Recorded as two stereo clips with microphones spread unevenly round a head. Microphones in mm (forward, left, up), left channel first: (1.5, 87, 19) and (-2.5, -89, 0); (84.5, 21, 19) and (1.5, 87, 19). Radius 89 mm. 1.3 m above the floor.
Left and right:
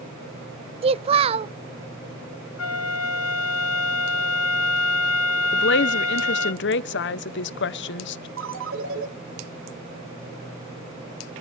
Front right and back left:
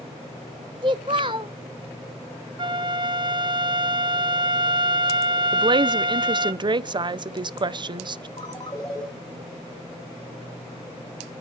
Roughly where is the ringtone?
Right.